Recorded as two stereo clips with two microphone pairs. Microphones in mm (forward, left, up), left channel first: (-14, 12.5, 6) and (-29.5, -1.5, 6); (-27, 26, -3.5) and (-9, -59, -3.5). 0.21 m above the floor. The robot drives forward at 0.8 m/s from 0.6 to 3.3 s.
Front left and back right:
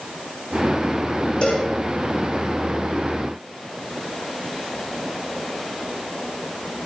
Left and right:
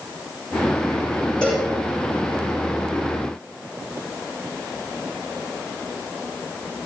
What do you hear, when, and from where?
1.4 s a cowbell: 20° left, 8 m; by 1.7 s 25° left, 7.5 m